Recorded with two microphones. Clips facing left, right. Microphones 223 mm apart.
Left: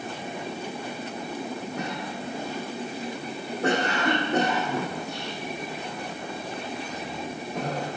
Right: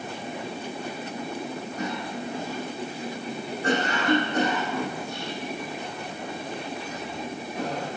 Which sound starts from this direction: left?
A cough, at 1.8 s.